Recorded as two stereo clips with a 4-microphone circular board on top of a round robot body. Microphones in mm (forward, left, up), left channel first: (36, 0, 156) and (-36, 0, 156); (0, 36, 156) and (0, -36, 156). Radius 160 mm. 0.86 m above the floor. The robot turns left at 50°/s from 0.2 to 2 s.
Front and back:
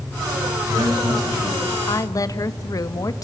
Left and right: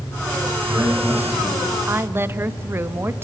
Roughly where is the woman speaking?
Ahead right.